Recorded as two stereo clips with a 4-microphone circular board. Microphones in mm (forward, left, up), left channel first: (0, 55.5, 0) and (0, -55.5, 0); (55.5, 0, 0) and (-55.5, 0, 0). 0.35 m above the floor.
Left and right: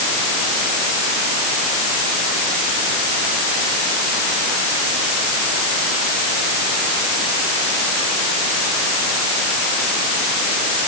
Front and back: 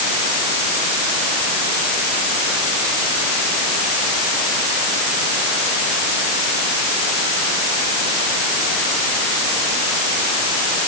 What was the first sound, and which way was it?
Only background noise.